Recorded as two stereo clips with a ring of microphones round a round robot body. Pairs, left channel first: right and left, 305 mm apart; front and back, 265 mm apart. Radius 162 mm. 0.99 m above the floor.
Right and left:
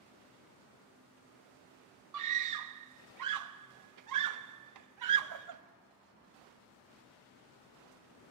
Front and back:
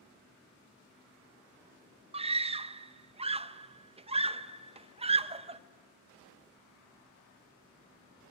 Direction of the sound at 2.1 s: 110° left.